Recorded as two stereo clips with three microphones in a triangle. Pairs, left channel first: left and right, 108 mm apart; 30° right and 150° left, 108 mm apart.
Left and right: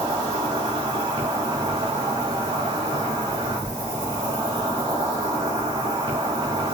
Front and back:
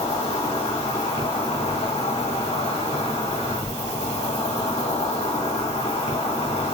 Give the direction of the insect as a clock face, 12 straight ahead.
1 o'clock.